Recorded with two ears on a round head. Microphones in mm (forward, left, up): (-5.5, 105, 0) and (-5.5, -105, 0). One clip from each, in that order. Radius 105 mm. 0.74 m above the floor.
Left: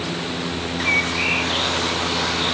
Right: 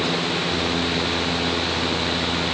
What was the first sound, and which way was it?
Only background noise.